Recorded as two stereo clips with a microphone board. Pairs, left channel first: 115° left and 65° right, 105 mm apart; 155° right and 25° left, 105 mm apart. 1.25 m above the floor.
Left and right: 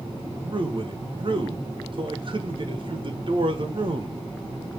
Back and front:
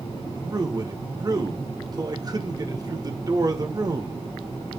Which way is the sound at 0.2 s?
30° right.